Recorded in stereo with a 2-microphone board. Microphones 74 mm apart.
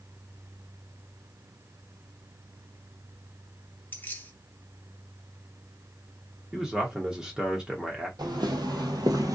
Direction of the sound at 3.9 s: 25° left (ahead or behind).